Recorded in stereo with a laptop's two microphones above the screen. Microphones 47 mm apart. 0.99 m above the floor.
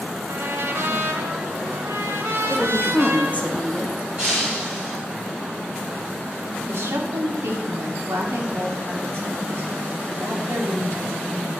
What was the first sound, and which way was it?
A trumpet, 70° right (ahead or behind).